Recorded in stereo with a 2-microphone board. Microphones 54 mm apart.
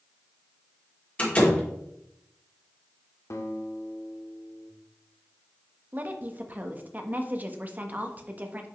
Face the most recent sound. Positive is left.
turn(degrees=-30)  # may be behind; listen again after turning